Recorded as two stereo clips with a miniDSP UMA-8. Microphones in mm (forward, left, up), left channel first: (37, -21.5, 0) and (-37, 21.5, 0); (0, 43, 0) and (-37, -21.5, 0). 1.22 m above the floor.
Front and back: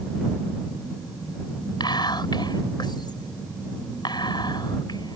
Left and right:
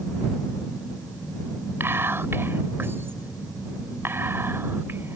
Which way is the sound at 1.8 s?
60° right.